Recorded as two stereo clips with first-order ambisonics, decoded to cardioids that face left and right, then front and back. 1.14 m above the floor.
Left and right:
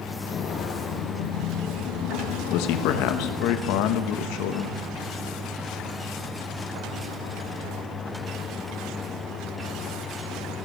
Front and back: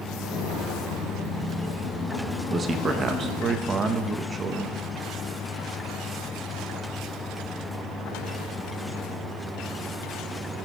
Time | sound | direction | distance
0.2 | footsteps | 35° left | 2.5 m
2.5 | a man speaking | 110° left | 1.1 m